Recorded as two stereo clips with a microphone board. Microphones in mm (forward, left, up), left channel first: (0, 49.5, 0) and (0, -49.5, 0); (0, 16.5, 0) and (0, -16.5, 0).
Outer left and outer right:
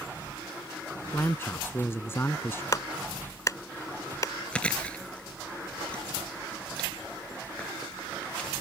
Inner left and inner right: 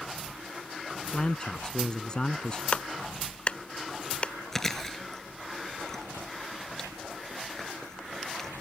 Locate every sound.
1.1 s a man speaking: 25° left (ahead or behind)
2.7 s a clap: 35° left (ahead or behind)
4.5 s chewing: 15° left (ahead or behind)